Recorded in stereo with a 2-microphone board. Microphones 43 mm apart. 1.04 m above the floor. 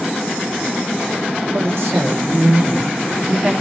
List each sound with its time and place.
1.5 s a woman speaking: 70° right (ahead or behind), 1.6 m; by 3.5 s 10° right (ahead or behind), 1.6 m